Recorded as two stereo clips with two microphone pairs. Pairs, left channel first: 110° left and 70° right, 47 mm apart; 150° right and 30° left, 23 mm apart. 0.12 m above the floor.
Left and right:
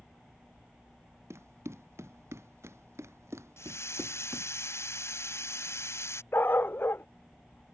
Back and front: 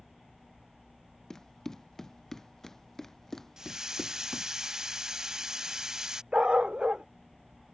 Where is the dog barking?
70° left.